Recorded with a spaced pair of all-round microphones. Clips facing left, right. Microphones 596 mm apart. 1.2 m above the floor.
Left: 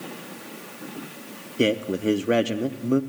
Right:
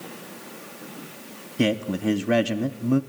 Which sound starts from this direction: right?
A man speaking, at 1.6 s.